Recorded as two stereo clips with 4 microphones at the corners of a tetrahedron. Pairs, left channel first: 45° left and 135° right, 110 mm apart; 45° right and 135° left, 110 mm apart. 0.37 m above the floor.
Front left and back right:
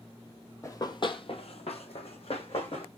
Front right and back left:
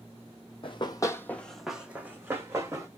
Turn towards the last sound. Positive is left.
turn(degrees=75)